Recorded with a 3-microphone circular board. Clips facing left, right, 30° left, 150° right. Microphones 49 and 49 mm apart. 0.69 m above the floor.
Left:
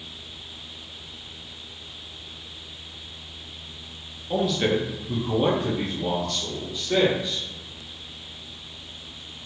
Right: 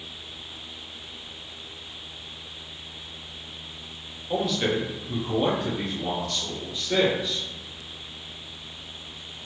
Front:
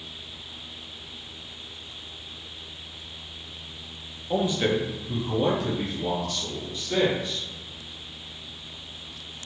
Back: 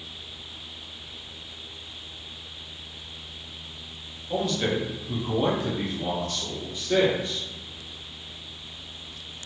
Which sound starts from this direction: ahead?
A man speaking, at 4.3 s.